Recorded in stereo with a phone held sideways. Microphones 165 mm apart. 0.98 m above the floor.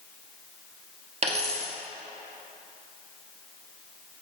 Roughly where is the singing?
No singing in this recording.